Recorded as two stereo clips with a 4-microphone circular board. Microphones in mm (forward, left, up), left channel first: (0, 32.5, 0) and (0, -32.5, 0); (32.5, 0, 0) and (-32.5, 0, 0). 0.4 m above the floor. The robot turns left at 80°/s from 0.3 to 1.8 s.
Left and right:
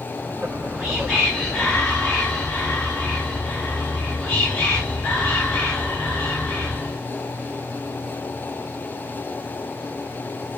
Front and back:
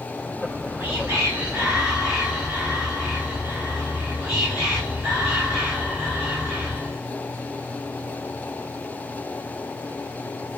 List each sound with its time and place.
0.4 s whispering: 140° right, 1.5 m; by 7.0 s 110° left, 1.5 m